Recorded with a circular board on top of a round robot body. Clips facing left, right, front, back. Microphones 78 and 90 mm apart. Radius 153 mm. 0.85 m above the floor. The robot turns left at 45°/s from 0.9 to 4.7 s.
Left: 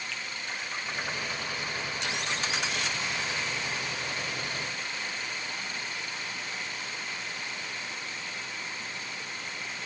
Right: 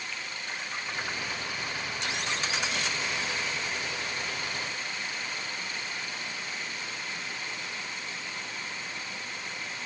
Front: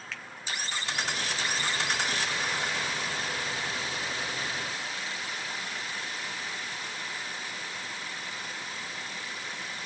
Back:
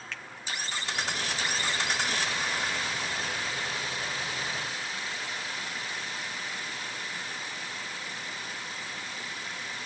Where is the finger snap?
90° left, 2.5 m.